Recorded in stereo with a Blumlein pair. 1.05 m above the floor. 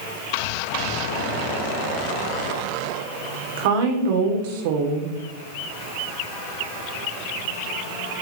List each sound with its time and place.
3.6 s a woman speaking: 50° right, 2.5 m